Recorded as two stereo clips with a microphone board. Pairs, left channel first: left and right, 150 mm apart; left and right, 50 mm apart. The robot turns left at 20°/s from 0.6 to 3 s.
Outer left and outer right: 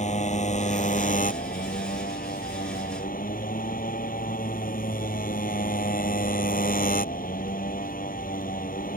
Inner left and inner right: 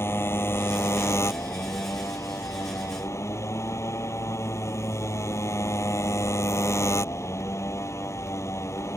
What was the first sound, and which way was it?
A motorcycle, 125° left.